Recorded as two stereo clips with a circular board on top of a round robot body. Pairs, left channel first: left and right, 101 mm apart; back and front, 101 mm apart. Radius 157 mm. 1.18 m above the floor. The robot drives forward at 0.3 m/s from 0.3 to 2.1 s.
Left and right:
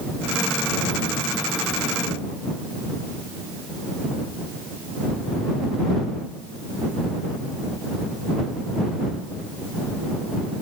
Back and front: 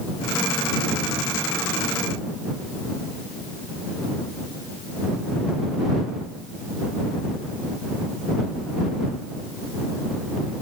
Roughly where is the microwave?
No microwave in this recording.